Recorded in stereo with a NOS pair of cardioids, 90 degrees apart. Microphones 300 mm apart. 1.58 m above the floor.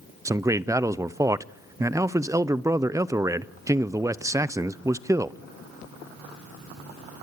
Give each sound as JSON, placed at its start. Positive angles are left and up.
{"t": 0.2, "sound": "a man speaking", "azimuth_deg": -10, "distance_m": 0.6}